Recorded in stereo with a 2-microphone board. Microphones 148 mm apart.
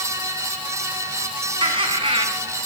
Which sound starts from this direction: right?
Laughter, at 1.6 s.